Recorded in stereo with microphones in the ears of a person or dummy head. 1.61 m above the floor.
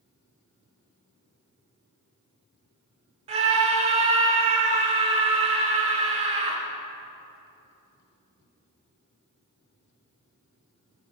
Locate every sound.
3.3 s a scream: 30° right (ahead or behind), 1.6 m